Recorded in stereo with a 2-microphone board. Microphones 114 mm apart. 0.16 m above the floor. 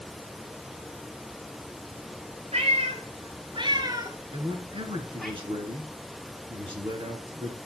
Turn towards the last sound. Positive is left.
turn(degrees=-50)  # may be behind; listen again after turning